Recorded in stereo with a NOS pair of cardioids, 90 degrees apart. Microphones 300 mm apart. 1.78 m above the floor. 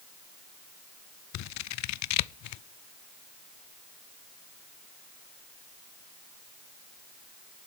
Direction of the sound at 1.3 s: 65° left.